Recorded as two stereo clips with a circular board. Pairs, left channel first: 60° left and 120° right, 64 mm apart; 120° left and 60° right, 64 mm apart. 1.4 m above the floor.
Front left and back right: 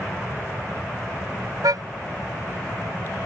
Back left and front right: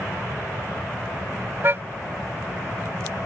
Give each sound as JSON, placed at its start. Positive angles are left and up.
{"t": 1.6, "sound": "a car horn", "azimuth_deg": -110}